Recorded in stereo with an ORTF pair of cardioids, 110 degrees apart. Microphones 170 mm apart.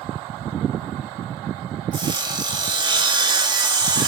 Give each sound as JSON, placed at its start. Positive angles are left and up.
{"t": 1.9, "sound": "sawing", "azimuth_deg": -25, "distance_m": 0.8}